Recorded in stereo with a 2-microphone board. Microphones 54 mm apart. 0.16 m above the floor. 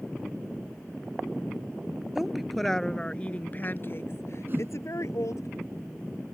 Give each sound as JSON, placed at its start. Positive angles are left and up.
{"t": 2.1, "sound": "a woman speaking", "side_deg": -5}
{"t": 4.5, "sound": "a whoosh", "side_deg": -45}